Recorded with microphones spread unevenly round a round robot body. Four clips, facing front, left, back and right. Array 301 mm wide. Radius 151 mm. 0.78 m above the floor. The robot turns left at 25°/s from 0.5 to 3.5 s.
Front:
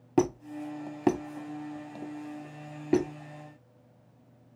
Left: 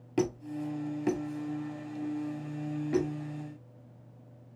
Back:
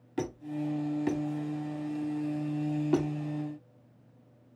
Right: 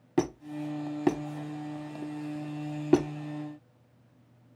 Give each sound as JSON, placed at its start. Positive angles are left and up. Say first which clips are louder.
{"t": 0.2, "sound": "a squeak", "louder": "right 1 dB, front 6 dB", "azimuth_deg": -10, "distance_m": 1.2}